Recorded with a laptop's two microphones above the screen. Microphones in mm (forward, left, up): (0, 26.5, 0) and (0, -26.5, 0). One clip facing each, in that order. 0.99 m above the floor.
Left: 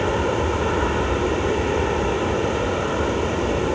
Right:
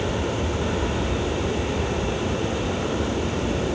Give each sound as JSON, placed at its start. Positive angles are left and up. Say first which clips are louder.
{"t": 0.0, "sound": "an aircraft", "louder": "left 5 dB", "side_deg": 35}